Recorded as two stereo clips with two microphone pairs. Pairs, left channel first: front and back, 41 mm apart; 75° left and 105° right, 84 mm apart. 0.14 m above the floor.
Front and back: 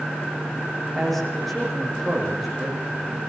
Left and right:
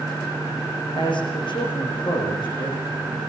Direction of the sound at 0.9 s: 90° left.